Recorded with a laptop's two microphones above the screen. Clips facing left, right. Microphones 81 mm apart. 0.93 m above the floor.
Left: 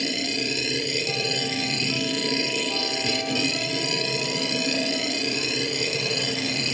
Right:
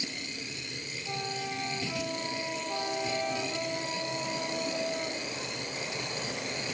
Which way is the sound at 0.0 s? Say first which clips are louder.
Left 12 dB; 90° left.